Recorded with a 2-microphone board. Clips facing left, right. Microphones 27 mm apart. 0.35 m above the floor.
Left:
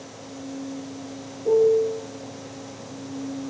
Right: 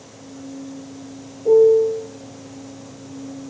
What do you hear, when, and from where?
1.4 s a piano: 20° right (ahead or behind), 1.6 m